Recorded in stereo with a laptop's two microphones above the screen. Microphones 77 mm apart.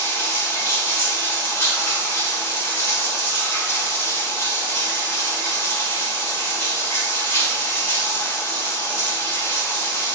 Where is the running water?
30° left (ahead or behind), 1.4 m.